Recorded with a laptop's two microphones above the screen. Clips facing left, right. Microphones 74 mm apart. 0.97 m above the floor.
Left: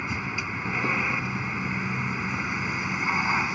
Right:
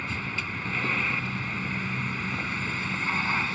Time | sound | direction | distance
0.0 | a vehicle | 15° left (ahead or behind) | ?